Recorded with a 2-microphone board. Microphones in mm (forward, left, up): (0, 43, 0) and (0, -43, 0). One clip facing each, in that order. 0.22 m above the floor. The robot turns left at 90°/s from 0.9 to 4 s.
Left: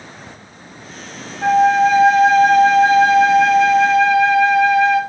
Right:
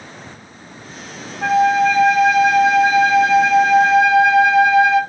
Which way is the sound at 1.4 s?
170° right.